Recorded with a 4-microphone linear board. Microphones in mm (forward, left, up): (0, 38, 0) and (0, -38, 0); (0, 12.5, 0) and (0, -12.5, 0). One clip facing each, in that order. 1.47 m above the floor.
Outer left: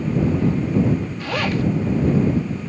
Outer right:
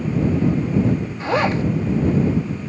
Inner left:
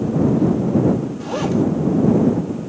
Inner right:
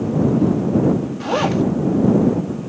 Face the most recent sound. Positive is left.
turn(degrees=-25)  # may be behind; listen again after turning